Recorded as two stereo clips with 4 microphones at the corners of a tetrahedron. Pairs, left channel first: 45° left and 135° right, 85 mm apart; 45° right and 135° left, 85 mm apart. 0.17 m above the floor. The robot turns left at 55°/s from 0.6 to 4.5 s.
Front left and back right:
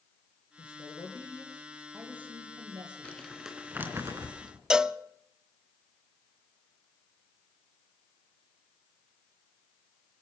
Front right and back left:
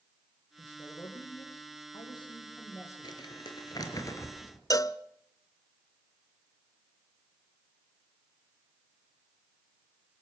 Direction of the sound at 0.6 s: 25° left.